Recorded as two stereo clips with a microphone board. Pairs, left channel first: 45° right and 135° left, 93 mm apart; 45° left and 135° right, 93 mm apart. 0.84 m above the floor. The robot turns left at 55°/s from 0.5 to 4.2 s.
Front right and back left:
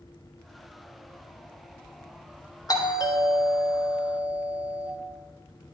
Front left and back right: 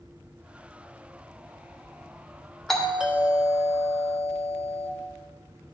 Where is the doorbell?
35° right, 0.9 m; by 4.9 s 120° right, 0.9 m.